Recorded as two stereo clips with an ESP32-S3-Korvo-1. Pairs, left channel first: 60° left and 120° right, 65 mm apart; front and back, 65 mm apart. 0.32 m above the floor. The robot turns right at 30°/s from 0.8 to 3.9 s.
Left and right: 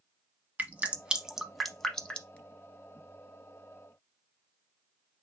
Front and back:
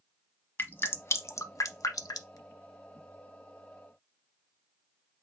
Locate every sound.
0.6 s dripping: 55° right, 0.7 m; by 2.4 s 5° right, 0.7 m